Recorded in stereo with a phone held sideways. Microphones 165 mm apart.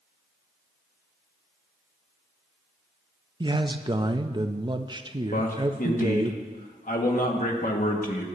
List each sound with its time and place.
3.4 s a man speaking: 25° right (ahead or behind), 0.5 m
5.3 s a man speaking: 55° left (ahead or behind), 1.6 m